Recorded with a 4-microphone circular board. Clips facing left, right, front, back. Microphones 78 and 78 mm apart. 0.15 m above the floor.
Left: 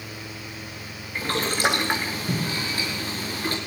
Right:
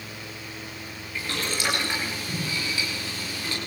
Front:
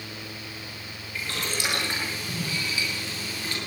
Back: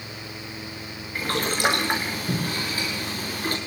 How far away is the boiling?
About 6.5 m.